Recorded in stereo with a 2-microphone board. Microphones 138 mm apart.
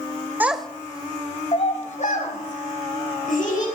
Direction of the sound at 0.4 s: 15° right (ahead or behind).